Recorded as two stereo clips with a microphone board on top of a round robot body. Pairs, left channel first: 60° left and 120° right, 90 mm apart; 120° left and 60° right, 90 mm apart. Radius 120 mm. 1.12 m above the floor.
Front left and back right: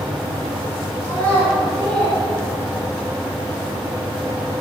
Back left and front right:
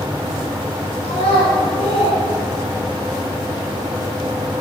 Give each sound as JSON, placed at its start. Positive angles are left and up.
{"t": 1.0, "sound": "a child speaking", "azimuth_deg": 130, "distance_m": 4.0}